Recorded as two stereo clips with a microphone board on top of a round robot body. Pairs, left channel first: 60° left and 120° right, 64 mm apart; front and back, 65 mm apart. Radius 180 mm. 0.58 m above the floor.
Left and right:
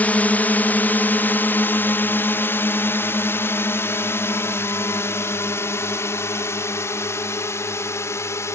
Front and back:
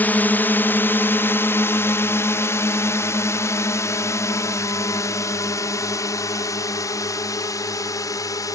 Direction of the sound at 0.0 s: 25° left.